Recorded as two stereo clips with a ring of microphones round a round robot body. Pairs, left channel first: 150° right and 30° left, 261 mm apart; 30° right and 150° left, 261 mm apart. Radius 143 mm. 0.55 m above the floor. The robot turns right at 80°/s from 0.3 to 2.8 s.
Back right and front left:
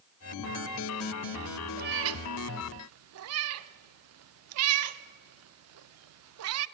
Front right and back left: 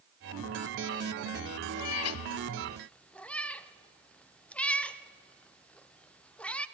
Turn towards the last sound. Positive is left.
turn(degrees=55)